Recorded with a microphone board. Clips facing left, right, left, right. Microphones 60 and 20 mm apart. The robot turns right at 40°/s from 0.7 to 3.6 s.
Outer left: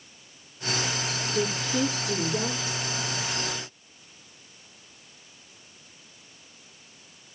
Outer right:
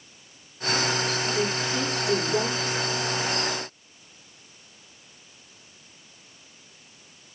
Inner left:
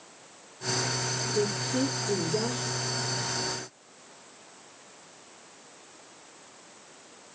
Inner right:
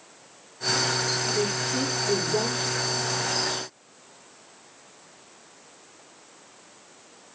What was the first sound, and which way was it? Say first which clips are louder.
A woman speaking: outer right 1 dB, inner right 2 dB; 175° left.